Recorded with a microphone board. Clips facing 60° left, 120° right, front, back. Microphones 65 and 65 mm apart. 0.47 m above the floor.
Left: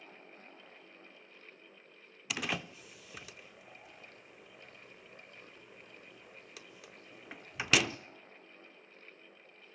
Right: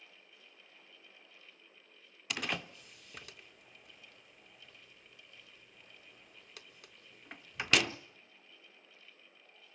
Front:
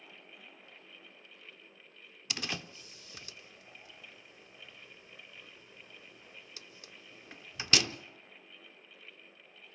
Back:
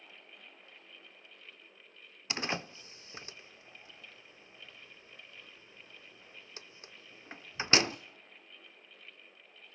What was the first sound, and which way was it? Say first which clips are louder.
A door slam: left 1 dB, back 4 dB; 145° left.